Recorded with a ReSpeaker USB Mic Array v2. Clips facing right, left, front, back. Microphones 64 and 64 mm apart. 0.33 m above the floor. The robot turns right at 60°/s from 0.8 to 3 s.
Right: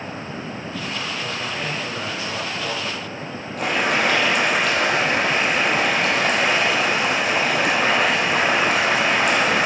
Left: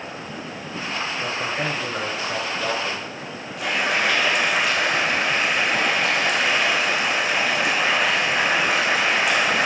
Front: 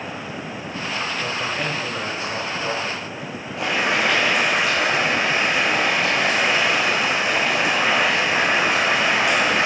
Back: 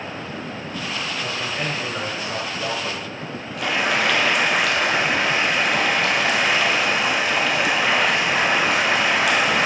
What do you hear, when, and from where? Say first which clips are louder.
1.2 s a man speaking: left 2 dB, front 1 dB; 55° left, 1.3 m; by 3.1 s 165° left, 1.3 m
3.6 s boiling: right 2 dB, even; 60° right, 2 m